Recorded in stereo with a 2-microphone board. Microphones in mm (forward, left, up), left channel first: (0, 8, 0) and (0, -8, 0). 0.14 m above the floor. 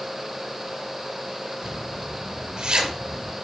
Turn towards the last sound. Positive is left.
turn(degrees=-50)  # may be behind; listen again after turning